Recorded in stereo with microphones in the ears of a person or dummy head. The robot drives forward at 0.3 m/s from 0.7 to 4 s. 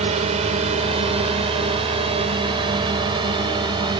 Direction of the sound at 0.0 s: 35° right (ahead or behind).